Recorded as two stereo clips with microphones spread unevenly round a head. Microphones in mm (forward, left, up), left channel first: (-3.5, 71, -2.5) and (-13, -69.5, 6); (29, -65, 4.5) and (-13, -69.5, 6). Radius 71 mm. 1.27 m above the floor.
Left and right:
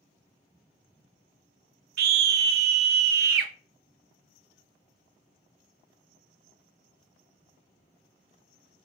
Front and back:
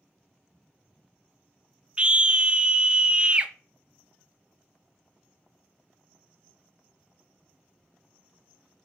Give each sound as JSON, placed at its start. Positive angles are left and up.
{"t": 2.0, "sound": "a scream", "azimuth_deg": -110, "distance_m": 0.5}